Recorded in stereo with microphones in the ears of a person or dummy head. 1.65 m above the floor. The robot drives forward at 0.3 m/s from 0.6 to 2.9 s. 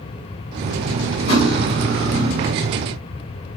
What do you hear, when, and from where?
1.3 s cutlery clinking: 45° left (ahead or behind), 1.7 m; by 2.5 s 55° left (ahead or behind), 1.6 m